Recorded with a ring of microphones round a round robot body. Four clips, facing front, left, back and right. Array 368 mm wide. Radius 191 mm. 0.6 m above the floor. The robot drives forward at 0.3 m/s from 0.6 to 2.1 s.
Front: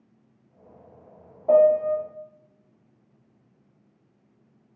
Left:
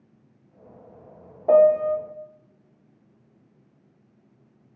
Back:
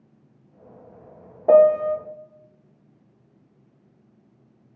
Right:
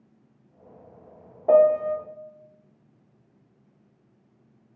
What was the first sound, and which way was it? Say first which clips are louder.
A piano: left 1 dB, back 3 dB; straight behind.